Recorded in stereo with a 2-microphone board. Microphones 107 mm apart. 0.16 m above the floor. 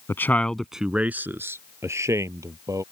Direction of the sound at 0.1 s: 25° left (ahead or behind).